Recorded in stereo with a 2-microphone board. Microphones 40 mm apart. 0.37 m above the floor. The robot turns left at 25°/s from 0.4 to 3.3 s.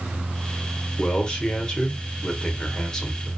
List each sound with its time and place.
1.0 s a man speaking: 20° left (ahead or behind), 0.8 m; by 3.3 s 15° left (ahead or behind), 0.8 m